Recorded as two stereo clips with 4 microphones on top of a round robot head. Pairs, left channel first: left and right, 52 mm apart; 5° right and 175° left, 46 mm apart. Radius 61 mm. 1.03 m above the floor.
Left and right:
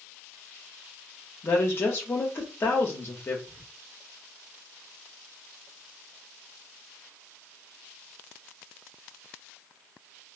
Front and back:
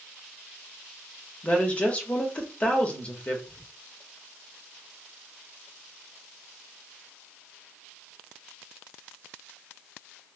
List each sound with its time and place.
1.4 s a woman speaking: 55° left, 1.0 m
3.5 s whispering: 10° right, 1.6 m